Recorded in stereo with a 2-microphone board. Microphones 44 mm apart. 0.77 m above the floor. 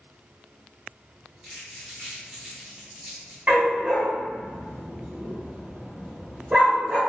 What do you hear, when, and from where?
1.4 s crumpling: 25° right (ahead or behind), 1.9 m
3.5 s a dog barking: 45° right (ahead or behind), 1.7 m